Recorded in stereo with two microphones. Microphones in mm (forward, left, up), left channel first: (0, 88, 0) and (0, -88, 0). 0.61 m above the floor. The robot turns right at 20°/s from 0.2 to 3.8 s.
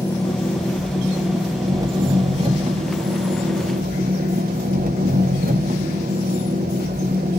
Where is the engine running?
170° left, 0.9 m; by 7.4 s 120° right, 0.9 m.